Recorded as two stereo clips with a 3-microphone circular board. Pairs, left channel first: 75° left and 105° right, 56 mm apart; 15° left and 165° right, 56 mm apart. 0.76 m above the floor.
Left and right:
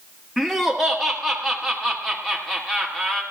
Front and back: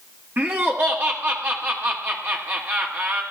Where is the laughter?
160° left, 1.3 m.